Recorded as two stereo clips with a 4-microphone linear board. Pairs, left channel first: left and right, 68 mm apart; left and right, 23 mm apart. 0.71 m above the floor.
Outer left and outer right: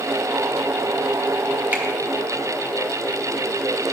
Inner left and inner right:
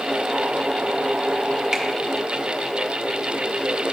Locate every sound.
1.7 s a finger snap: 30° right (ahead or behind), 0.9 m